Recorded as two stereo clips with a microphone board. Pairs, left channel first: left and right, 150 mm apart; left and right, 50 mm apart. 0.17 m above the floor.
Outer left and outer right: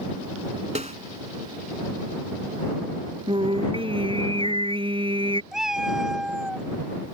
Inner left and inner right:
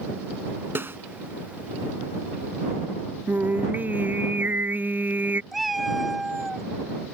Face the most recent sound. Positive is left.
turn(degrees=-5)  # may be behind; listen again after turning